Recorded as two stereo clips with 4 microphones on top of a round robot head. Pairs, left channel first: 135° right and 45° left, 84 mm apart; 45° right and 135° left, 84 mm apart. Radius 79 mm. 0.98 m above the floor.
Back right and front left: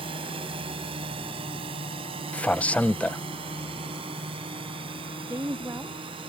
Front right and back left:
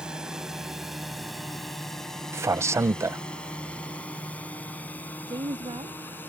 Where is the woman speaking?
105° left.